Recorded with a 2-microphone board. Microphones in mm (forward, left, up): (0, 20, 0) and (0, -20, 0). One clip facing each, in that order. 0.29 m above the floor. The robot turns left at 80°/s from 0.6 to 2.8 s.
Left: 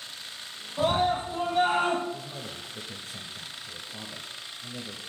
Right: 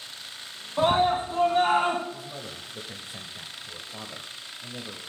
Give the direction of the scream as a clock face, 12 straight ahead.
2 o'clock.